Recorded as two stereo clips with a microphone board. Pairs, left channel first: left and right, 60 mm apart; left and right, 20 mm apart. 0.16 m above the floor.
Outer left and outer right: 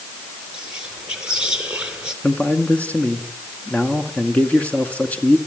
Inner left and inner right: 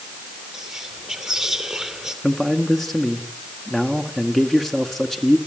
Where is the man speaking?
25° left (ahead or behind), 1.9 m.